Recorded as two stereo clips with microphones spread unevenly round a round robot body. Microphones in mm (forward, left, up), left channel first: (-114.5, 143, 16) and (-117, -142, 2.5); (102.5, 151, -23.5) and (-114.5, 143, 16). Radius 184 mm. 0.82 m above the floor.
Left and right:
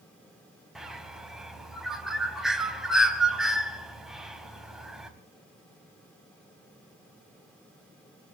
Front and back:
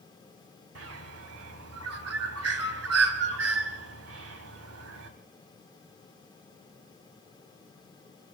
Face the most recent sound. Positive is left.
turn(degrees=180)